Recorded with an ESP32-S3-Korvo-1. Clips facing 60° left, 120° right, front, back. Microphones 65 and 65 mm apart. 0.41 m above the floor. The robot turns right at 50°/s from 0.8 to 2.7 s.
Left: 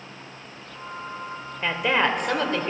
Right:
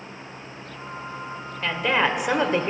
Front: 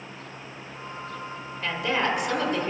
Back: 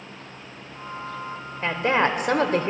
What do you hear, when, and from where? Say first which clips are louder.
1.6 s a woman speaking: even, back 4 dB; 135° left, 1.2 m; by 2.7 s 170° right, 1.2 m